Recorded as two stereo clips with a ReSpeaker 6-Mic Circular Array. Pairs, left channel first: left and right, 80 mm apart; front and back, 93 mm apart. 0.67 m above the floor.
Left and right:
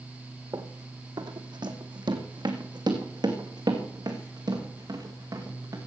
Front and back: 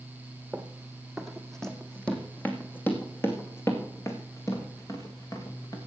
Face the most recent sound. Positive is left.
turn(degrees=-50)